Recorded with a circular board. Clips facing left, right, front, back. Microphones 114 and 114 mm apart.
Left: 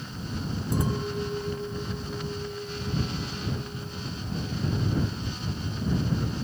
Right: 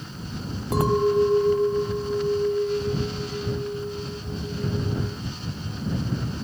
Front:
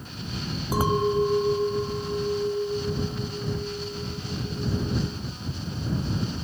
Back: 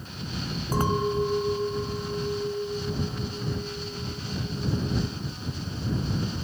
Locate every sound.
0.7 s a clink: 80° right